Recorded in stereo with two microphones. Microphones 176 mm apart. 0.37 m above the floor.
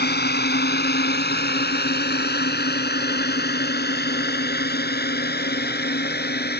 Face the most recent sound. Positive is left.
turn(degrees=65)  # may be behind; listen again after turning